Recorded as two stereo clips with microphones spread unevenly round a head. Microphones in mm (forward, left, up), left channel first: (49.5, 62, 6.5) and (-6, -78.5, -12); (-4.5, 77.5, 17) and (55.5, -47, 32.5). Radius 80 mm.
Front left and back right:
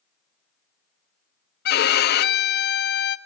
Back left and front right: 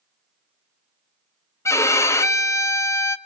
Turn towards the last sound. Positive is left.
turn(degrees=45)